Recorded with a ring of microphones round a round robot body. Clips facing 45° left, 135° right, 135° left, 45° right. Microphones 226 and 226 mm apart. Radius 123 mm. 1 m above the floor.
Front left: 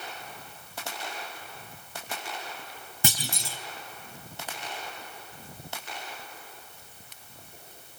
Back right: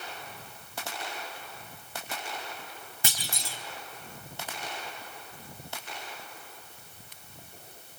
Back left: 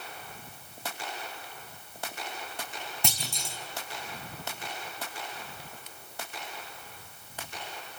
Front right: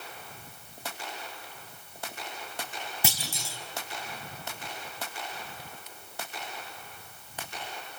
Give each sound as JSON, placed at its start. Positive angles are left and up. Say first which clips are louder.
{"t": 3.0, "sound": "a clunk", "louder": "front left 7 dB, even", "azimuth_deg": 40, "distance_m": 4.0}